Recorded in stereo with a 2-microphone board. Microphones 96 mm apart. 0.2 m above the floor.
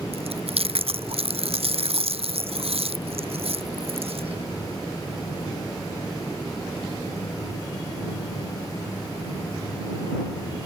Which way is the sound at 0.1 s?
75° right (ahead or behind).